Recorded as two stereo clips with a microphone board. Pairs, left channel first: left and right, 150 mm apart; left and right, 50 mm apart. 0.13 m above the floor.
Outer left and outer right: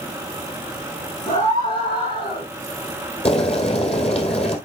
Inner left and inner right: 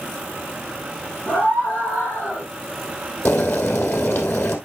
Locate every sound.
1.3 s a scream: 25° left (ahead or behind), 2.5 m; by 2.5 s 40° left (ahead or behind), 3 m
3.2 s boiling: 45° left (ahead or behind), 2 m